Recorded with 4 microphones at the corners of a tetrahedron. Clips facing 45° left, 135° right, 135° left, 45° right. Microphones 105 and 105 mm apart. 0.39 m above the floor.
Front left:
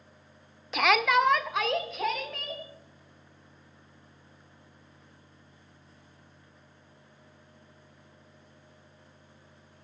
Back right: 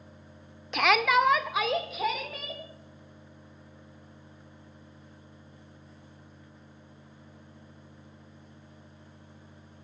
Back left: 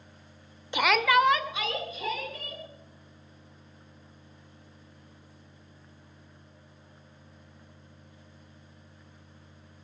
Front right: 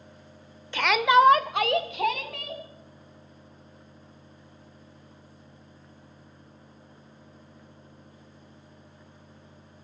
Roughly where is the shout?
Behind left.